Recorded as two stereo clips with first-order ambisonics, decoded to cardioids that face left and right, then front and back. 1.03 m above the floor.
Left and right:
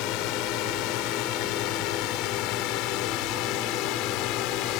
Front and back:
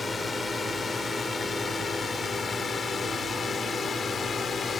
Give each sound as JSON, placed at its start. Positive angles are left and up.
{"t": 0.0, "sound": "a drone", "azimuth_deg": 75}